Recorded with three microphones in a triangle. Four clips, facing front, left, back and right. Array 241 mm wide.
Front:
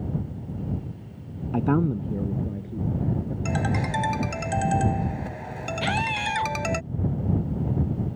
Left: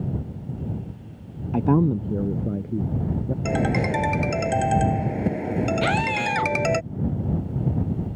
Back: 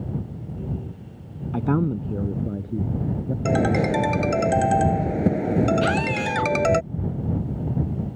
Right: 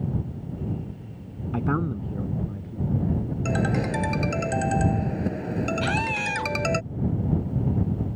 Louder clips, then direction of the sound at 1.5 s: Left 7 dB, even; 70° left.